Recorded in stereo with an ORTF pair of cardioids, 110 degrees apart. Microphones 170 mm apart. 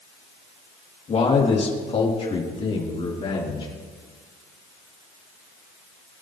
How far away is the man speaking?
About 3 m.